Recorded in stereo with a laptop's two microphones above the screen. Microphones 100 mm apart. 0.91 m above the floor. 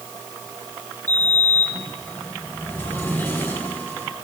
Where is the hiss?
No hiss in this recording.